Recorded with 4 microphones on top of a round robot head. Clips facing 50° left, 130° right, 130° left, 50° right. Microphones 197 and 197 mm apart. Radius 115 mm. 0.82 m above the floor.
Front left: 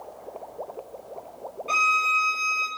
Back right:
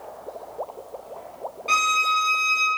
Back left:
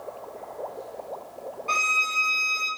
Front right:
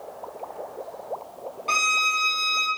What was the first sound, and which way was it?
A violin, 95° right.